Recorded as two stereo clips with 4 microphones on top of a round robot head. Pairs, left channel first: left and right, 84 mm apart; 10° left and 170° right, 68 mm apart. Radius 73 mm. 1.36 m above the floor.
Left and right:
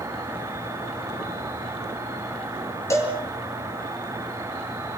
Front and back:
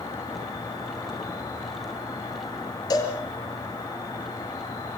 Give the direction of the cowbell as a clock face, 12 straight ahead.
11 o'clock.